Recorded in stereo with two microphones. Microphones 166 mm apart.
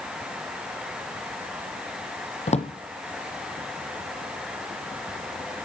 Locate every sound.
2.5 s a drawer: 40° left (ahead or behind), 1.2 m